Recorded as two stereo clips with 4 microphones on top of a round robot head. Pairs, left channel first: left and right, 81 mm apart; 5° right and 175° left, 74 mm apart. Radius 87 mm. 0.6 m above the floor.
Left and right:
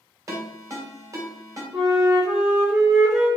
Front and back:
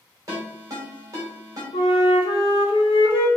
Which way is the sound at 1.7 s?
5° right.